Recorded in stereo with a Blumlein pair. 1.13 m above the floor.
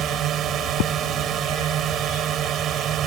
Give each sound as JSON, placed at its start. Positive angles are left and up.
{"t": 0.0, "sound": "a drone", "azimuth_deg": -30}